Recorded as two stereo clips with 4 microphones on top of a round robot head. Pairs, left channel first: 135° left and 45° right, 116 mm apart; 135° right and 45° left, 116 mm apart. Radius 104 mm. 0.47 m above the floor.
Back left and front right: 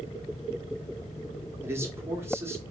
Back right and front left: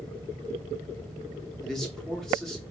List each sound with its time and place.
1.6 s a man speaking: 55° right, 1.1 m